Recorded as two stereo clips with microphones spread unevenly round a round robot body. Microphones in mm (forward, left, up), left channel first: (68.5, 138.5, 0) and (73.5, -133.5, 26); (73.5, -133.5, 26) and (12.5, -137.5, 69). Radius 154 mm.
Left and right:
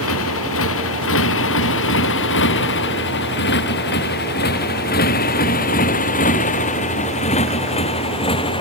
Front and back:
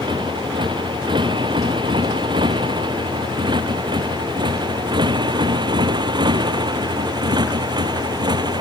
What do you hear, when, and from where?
0.0 s a motorcycle: 140° left; by 8.6 s 165° left